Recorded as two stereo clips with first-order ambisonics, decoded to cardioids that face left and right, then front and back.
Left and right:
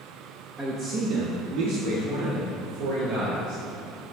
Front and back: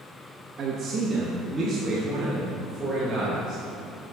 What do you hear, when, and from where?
0.6 s a man speaking: 155° right, 0.8 m; by 3.6 s 95° right, 3 m